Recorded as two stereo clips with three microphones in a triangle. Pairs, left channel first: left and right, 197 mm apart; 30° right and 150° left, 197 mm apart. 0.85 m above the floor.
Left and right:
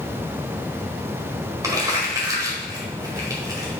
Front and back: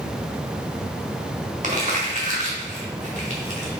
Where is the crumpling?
160° right, 1.8 m.